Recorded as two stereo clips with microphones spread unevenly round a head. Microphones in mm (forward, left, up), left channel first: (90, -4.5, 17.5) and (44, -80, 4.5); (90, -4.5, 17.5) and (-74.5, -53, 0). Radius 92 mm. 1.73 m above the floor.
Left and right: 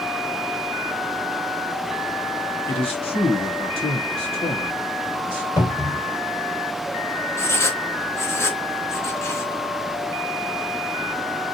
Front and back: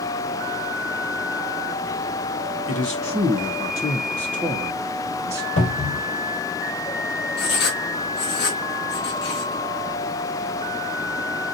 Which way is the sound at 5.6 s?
15° left.